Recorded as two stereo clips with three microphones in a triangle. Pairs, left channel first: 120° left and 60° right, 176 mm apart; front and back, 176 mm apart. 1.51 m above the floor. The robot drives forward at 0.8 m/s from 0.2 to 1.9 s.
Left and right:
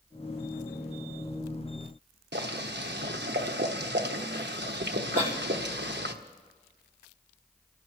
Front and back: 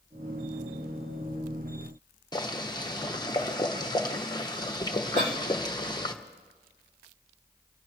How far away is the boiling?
About 1.0 m.